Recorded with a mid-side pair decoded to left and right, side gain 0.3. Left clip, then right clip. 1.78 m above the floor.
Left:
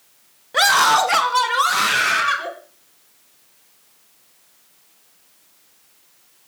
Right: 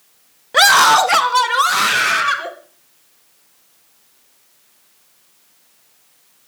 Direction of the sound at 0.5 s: 55° right.